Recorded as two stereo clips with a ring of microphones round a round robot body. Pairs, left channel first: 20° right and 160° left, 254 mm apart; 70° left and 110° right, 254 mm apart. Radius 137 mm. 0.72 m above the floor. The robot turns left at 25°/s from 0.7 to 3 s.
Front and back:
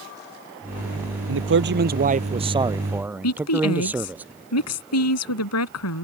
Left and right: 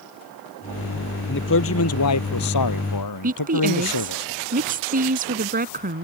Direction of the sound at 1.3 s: 115° left.